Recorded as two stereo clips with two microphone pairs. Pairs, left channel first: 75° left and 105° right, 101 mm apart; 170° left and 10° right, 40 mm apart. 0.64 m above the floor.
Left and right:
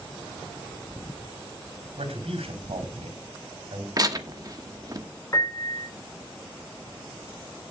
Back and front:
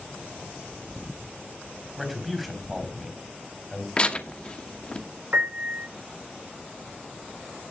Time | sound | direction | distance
2.0 | a man speaking | 100° right | 3.5 m
4.0 | tearing paper | 135° right | 1.2 m
5.3 | a piano | 20° left | 2.5 m